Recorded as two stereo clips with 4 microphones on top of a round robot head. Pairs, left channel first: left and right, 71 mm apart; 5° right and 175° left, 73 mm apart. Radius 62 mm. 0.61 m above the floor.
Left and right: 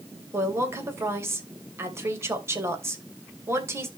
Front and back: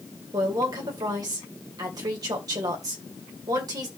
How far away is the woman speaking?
About 2.5 m.